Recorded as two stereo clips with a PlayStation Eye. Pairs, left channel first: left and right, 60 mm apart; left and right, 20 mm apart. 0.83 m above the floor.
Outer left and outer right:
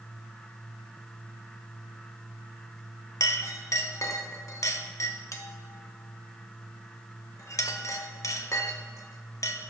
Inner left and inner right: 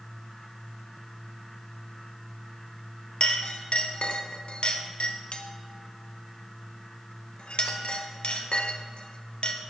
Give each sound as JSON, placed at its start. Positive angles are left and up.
{"t": 3.2, "sound": "a clink", "side_deg": 60, "distance_m": 0.7}